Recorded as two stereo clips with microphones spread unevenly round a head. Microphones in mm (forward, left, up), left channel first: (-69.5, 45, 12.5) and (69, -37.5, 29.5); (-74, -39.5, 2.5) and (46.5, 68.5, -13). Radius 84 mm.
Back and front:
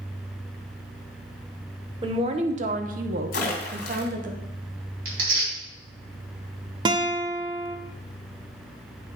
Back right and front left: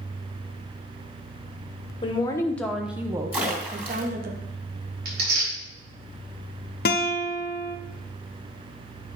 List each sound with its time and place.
2.0 s a woman speaking: 85° right, 0.8 m; by 4.3 s 5° left, 1.0 m
3.3 s a splash: 125° left, 2.5 m
5.0 s tearing paper: straight ahead, 3.5 m
6.8 s a guitar: 95° right, 0.7 m